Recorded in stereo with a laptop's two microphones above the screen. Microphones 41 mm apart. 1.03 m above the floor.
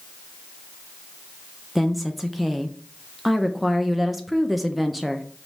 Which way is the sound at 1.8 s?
5° right (ahead or behind).